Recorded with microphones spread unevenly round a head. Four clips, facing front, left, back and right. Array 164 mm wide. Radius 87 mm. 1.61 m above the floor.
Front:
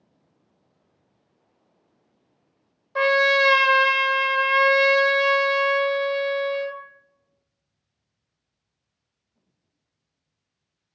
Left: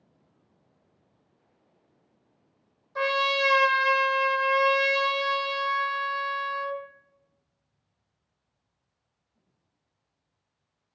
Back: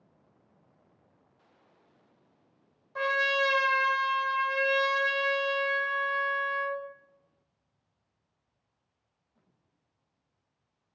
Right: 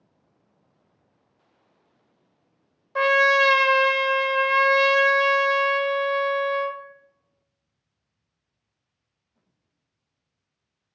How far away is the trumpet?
About 0.5 m.